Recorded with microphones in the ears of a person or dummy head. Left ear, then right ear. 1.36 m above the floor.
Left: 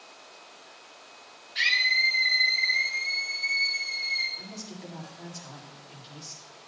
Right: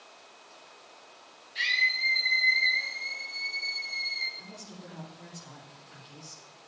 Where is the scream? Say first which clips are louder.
Left 3 dB; 20° right (ahead or behind), 6 m; by 4.3 s 5° right (ahead or behind), 7 m.